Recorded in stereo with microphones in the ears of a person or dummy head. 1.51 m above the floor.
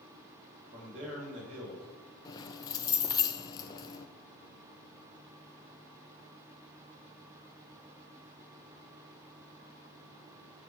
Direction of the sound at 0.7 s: 40° right (ahead or behind).